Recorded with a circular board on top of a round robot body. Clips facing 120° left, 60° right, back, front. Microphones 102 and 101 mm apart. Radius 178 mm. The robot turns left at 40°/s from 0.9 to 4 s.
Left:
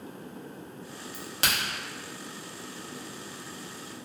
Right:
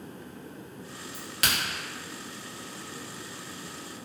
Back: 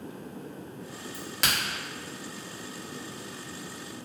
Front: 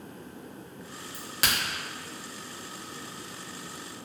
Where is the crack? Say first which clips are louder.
Even, even; 95° left, 1.2 m; by 1.6 s 75° left, 1.2 m.